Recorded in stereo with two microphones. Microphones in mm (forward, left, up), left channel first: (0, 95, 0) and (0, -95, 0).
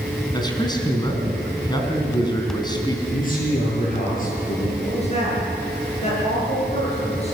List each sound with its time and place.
0.3 s a man speaking: 20° left (ahead or behind), 4 m
3.1 s a man speaking: 50° left (ahead or behind), 7.5 m
4.8 s a woman speaking: 35° left (ahead or behind), 9 m